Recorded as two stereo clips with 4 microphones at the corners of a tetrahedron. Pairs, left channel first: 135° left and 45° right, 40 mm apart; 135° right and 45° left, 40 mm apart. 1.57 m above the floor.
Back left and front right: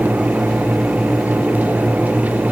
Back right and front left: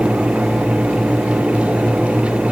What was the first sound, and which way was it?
Only background noise.